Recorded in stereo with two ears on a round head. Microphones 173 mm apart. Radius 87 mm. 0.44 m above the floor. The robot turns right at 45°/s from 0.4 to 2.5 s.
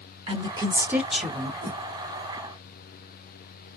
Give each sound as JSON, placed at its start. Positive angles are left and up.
{"t": 0.3, "sound": "a woman speaking", "azimuth_deg": -35, "distance_m": 1.3}
{"t": 1.6, "sound": "a whoosh", "side_deg": -25, "distance_m": 1.8}